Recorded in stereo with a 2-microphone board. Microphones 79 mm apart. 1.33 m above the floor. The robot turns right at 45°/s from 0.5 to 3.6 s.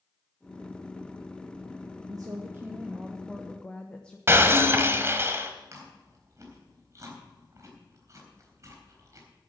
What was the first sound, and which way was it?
A woman speaking, 55° right.